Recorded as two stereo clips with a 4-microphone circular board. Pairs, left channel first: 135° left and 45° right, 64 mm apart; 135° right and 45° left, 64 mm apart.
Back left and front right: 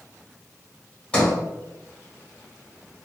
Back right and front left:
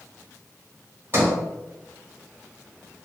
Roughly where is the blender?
I don't hear a blender.